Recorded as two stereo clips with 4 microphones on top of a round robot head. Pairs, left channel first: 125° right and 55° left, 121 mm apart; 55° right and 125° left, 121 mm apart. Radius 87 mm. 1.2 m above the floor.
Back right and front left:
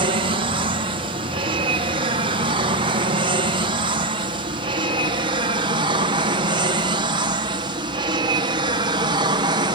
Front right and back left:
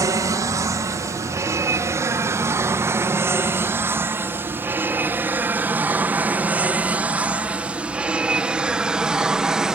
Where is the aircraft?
70° left; by 9.8 s 45° left.